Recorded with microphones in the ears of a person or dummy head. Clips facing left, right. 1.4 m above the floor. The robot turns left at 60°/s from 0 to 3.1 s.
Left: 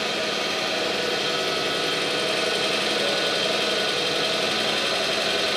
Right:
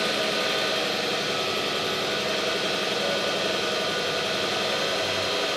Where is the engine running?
125° right, 0.7 m; by 5.6 s 50° left, 0.7 m.